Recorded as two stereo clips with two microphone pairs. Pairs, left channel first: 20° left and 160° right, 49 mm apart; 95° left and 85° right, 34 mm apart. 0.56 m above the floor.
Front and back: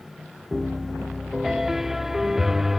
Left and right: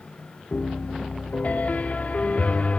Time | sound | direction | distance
0.5 | a piano | 125° left | ?